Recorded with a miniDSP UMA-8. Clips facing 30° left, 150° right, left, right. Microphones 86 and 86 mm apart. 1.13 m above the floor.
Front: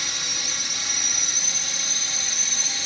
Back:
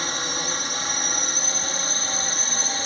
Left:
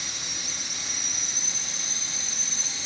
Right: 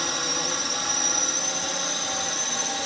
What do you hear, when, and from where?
0.0 s a drone: 105° right